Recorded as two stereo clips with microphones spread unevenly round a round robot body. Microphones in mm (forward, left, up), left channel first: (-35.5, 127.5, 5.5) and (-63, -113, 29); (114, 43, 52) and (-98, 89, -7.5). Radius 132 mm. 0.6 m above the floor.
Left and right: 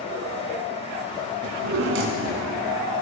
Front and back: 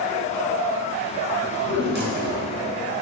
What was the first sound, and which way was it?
A drawer, 135° right.